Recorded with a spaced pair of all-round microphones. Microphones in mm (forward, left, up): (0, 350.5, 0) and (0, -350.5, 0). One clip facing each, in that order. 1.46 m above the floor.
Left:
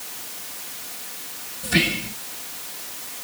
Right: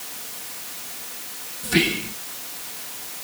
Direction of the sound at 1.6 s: 10° left (ahead or behind).